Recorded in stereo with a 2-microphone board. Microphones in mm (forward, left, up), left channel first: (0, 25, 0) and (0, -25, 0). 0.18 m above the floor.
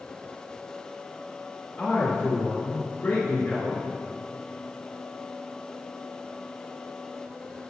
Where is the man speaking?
15° left (ahead or behind), 2 m.